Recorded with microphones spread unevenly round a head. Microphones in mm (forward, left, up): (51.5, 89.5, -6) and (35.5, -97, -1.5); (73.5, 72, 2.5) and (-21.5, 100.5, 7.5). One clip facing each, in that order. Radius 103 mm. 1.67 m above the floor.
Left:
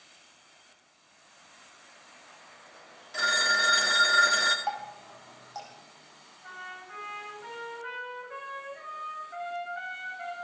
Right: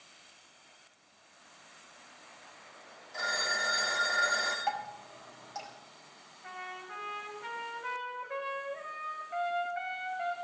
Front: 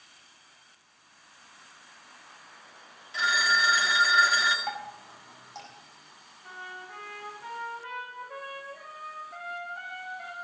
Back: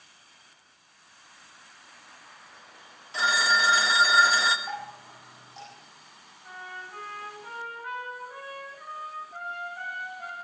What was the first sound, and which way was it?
A phone ringing, 115° left.